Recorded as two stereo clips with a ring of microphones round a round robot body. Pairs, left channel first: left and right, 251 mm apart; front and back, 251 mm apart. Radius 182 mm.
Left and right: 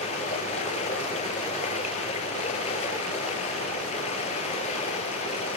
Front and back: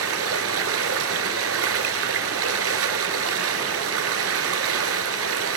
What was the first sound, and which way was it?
Running water, 160° left.